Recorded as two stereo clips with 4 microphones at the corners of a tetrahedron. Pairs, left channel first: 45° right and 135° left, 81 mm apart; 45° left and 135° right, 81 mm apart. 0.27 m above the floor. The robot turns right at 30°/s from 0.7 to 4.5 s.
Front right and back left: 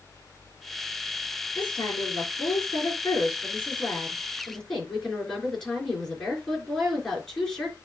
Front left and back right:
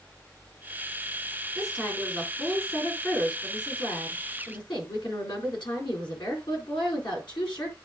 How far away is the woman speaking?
About 4 m.